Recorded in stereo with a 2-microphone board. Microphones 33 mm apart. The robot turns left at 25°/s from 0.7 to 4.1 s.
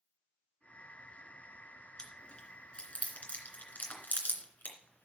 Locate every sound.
2.0 s chewing: 25° left (ahead or behind), 2.5 m; by 5.0 s 70° left (ahead or behind), 2.5 m